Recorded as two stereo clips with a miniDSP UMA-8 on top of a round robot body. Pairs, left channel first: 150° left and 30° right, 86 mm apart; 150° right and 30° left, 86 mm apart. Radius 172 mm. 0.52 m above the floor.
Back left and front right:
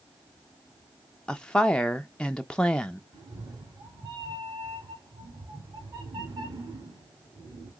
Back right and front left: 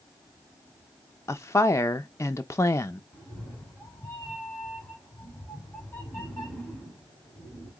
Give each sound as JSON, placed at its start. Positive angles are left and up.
{"t": 1.3, "sound": "a woman speaking", "azimuth_deg": -140, "distance_m": 0.7}
{"t": 3.1, "sound": "a cat meowing", "azimuth_deg": -75, "distance_m": 1.8}